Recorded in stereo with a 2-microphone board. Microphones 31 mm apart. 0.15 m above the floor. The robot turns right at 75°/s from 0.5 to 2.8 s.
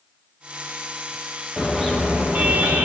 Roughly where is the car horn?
Behind.